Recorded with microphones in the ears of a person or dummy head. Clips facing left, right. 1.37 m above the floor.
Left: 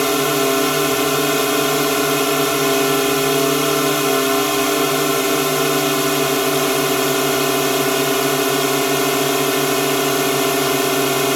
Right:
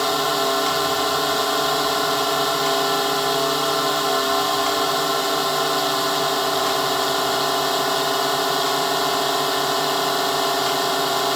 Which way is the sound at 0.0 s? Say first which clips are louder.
Left 5 dB; 35° left (ahead or behind).